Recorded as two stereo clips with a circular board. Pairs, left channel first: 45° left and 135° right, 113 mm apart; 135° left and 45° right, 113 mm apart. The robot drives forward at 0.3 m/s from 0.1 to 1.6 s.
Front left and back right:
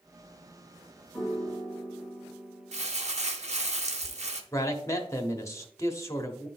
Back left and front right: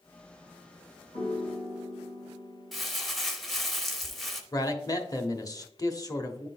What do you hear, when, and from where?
1.1 s a piano: 135° left, 4 m
2.7 s crumpling: 135° right, 0.8 m
4.5 s a man speaking: 95° left, 0.9 m